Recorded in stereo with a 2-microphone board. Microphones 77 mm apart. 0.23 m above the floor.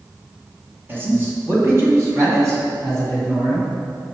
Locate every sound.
0.9 s a man speaking: 25° right (ahead or behind), 1.5 m; by 3.7 s 45° right (ahead or behind), 3 m